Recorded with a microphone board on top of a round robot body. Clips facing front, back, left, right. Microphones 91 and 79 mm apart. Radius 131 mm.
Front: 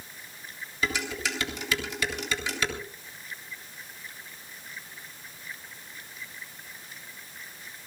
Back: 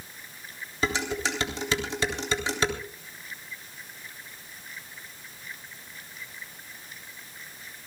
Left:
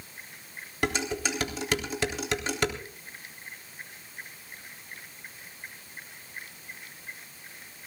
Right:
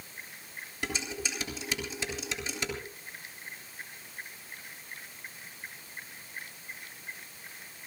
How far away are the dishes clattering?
About 3.5 m.